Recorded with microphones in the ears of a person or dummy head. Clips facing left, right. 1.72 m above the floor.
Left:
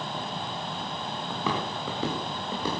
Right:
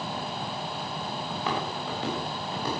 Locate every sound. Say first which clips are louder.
1.3 s footsteps: left 1 dB; 75° left (ahead or behind), 6.5 m